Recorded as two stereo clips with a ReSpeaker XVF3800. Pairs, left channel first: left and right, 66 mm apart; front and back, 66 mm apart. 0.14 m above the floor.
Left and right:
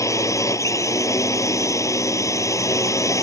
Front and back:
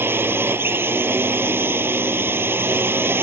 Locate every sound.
0.0 s a drone: 125° left